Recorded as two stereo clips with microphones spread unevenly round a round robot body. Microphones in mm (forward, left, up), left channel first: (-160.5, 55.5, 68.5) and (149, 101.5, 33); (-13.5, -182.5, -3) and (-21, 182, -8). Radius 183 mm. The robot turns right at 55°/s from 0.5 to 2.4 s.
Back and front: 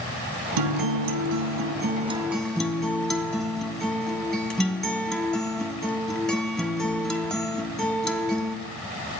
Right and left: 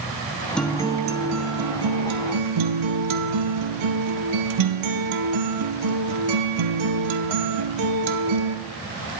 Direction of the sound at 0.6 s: Straight ahead.